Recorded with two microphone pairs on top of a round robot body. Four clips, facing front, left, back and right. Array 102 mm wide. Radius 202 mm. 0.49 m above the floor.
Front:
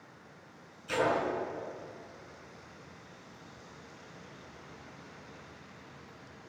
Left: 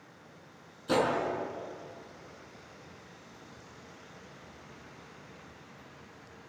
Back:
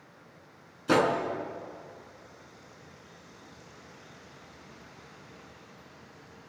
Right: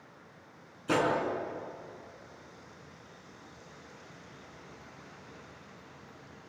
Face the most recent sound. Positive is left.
turn(degrees=-165)